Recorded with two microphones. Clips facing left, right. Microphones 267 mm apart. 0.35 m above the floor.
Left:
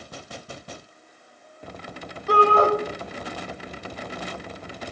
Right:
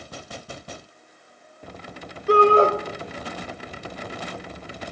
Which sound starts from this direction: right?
A shout, at 2.3 s.